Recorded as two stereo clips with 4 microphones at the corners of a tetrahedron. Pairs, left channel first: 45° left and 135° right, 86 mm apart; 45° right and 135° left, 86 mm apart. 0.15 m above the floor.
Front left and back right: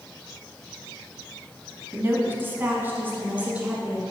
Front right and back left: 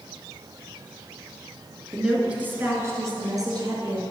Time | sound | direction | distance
1.9 | a woman speaking | 145° right | 1.7 m